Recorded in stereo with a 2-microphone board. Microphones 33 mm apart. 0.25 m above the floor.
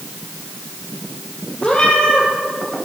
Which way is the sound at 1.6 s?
30° left (ahead or behind).